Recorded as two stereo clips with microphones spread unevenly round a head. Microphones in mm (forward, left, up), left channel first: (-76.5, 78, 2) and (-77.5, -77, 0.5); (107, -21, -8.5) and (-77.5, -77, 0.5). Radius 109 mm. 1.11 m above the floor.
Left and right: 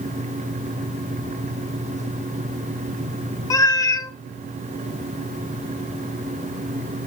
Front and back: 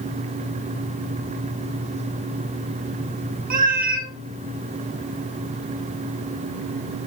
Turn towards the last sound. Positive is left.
turn(degrees=155)